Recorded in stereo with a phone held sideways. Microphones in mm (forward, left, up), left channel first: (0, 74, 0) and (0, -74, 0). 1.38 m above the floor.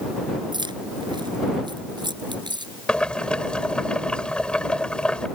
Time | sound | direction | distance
0.5 | keys jangling | 30° right (ahead or behind) | ?
2.9 | boiling | 5° left (ahead or behind) | ?